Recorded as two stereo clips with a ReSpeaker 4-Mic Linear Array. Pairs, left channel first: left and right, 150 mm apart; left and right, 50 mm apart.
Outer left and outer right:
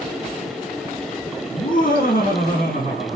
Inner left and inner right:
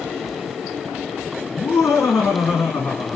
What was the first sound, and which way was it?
Laughter, 70° left (ahead or behind).